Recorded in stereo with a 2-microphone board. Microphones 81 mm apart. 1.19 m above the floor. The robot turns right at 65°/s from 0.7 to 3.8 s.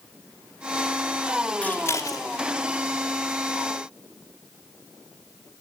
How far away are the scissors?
About 3 m.